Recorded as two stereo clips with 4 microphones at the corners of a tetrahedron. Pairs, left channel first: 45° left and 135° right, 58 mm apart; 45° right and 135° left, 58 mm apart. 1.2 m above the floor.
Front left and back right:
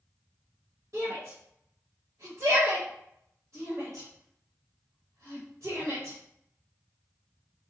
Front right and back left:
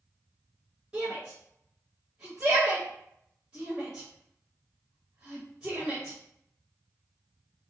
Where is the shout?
165° right, 1.5 m.